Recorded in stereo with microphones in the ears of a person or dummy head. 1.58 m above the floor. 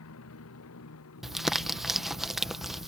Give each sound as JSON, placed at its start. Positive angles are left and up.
{"t": 0.0, "sound": "a motorcycle", "side_deg": 75}
{"t": 1.2, "sound": "crumpling", "side_deg": 0}